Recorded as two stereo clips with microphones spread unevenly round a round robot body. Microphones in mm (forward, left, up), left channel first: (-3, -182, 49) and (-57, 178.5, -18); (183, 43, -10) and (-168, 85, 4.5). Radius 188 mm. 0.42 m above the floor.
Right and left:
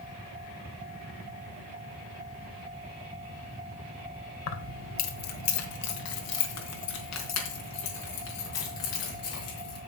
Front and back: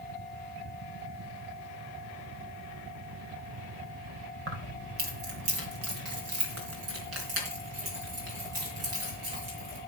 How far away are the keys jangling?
About 1.6 m.